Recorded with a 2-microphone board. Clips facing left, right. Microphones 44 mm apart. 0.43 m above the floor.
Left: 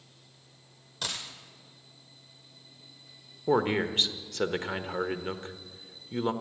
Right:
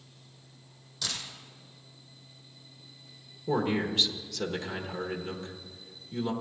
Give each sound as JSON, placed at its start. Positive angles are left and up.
{"t": 1.0, "sound": "a dropped coin", "side_deg": 50, "distance_m": 2.5}
{"t": 3.5, "sound": "a man speaking", "side_deg": 35, "distance_m": 1.1}